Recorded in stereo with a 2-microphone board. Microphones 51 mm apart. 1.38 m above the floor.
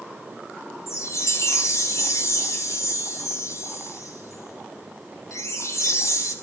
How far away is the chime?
About 3 m.